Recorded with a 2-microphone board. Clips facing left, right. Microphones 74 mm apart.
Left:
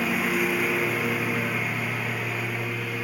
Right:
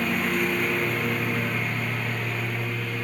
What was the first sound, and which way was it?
A lawn mower, 5° left (ahead or behind).